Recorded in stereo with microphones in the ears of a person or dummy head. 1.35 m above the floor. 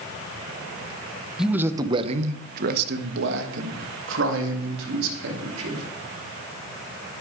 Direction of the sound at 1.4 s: Centre (ahead or behind).